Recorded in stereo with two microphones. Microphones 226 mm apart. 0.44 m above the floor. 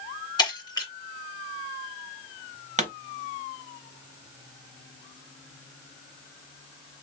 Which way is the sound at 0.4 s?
15° left (ahead or behind).